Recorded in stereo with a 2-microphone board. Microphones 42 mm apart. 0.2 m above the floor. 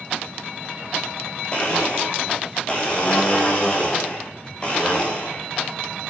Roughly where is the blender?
Left.